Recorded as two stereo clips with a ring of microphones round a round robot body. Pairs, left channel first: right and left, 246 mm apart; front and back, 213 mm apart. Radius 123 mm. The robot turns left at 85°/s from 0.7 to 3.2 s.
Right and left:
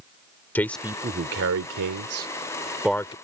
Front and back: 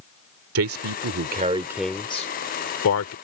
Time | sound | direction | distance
0.6 | a man speaking | 175° right | ?